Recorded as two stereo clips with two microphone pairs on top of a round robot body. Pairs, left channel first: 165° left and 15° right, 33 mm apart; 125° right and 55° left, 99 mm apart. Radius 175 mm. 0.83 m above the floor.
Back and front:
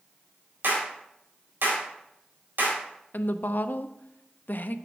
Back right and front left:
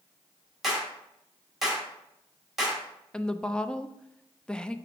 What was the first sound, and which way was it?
A clap, 35° right.